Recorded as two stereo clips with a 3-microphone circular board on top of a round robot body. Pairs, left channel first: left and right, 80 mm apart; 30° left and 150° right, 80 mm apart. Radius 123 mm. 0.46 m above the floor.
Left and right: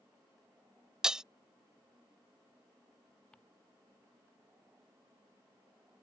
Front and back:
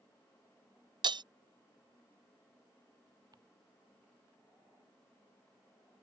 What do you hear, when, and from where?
1.0 s breaking glass: 170° right
3.3 s ticking: 170° left